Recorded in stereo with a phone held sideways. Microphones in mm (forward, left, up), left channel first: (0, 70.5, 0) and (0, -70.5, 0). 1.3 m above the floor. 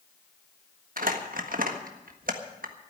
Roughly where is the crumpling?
Right.